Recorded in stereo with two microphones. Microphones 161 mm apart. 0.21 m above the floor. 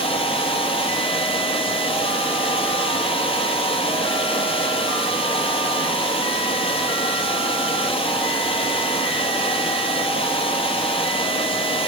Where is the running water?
35° left (ahead or behind), 1.1 m.